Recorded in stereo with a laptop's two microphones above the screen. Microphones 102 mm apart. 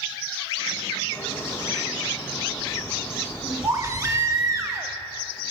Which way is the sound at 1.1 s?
25° left (ahead or behind).